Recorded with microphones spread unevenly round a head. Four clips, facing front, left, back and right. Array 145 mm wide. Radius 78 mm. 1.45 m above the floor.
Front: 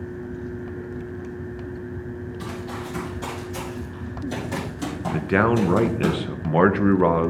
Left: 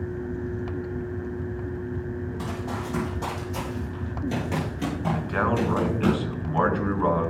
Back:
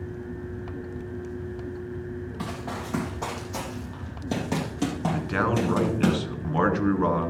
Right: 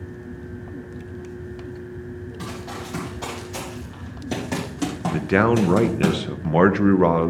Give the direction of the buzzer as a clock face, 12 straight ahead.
No buzzer in this recording.